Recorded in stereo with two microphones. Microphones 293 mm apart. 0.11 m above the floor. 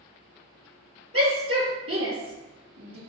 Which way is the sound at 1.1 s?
50° right (ahead or behind).